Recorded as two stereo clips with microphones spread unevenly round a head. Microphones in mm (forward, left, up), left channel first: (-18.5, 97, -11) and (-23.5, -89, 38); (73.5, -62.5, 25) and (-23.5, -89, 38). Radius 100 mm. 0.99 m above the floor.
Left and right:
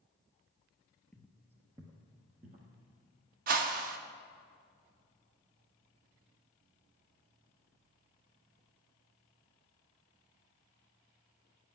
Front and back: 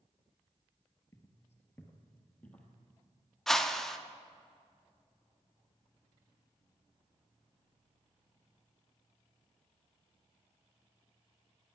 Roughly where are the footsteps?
Ahead.